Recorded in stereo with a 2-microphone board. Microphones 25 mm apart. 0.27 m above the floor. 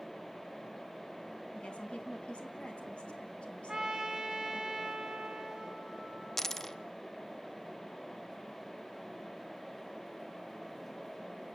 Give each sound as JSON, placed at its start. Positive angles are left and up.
{"t": 1.6, "sound": "a woman speaking", "side_deg": 45, "distance_m": 3.0}
{"t": 3.7, "sound": "a trumpet", "side_deg": -15, "distance_m": 2.0}
{"t": 6.4, "sound": "a dropped coin", "side_deg": 15, "distance_m": 0.5}